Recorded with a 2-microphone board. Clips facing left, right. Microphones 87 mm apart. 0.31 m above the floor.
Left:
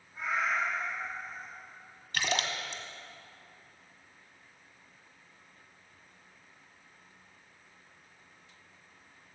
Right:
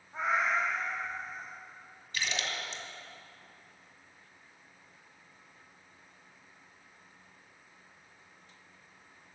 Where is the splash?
65° left (ahead or behind), 1.5 m.